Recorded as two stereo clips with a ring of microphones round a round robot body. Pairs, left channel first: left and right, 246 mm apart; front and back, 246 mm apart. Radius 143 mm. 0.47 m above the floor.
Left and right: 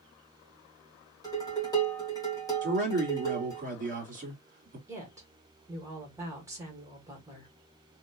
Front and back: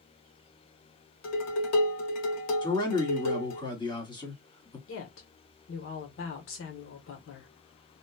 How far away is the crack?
No crack in this recording.